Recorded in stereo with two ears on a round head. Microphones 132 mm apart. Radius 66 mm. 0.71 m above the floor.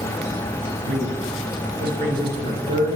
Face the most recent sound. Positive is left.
turn(degrees=-65)  # may be behind; listen again after turning